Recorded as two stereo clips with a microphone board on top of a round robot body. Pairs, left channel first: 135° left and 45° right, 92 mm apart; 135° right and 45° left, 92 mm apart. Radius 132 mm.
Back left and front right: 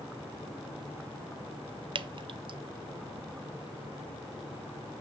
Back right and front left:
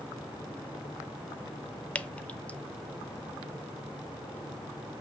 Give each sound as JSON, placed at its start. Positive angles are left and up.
{"t": 1.9, "sound": "dripping", "azimuth_deg": -60, "distance_m": 0.6}